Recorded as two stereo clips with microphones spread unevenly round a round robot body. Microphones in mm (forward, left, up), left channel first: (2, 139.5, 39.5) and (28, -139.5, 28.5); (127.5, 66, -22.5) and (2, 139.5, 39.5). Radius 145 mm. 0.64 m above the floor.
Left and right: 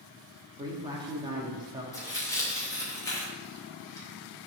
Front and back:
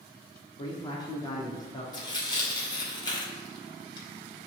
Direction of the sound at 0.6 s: 15° right.